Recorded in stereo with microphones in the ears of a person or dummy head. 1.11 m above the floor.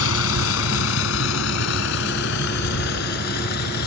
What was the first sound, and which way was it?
A vehicle, 85° left.